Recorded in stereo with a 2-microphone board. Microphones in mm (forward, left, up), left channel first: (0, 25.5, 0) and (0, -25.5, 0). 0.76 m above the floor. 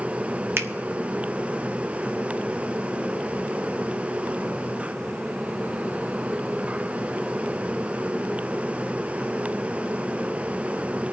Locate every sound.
0.6 s a finger snap: 45° right (ahead or behind), 0.8 m